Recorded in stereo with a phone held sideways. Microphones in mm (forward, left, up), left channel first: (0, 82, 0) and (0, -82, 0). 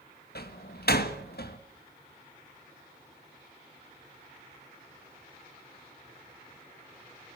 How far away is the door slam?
About 1.6 m.